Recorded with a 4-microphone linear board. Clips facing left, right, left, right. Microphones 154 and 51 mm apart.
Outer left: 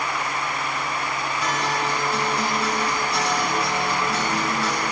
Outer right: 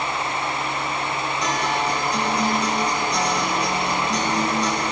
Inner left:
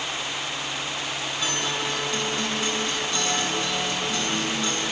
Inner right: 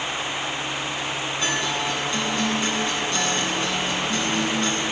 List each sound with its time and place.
1.4 s a guitar: 5° left (ahead or behind), 7 m